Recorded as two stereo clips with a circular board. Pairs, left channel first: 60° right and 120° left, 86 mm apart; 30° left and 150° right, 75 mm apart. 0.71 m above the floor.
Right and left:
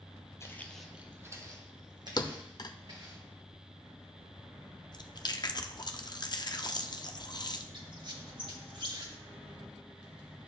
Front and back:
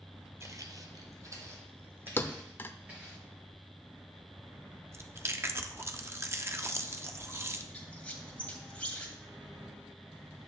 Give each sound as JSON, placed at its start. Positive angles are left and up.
{"t": 0.4, "sound": "footsteps", "azimuth_deg": -110, "distance_m": 1.2}
{"t": 2.2, "sound": "a thud", "azimuth_deg": -30, "distance_m": 0.5}
{"t": 4.9, "sound": "chewing", "azimuth_deg": -95, "distance_m": 0.6}
{"t": 7.7, "sound": "a squeak", "azimuth_deg": 100, "distance_m": 1.4}